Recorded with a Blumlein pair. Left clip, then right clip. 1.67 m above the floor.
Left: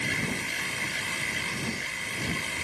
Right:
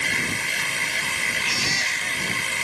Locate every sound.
0.0 s a machine running: 20° right
1.4 s a baby crying: 50° right